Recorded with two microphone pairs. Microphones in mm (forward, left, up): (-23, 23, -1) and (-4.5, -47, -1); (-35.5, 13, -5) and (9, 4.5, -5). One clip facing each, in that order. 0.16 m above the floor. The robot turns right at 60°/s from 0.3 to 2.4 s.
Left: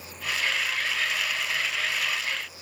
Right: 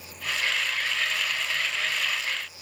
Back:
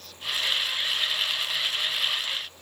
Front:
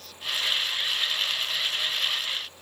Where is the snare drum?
I don't hear a snare drum.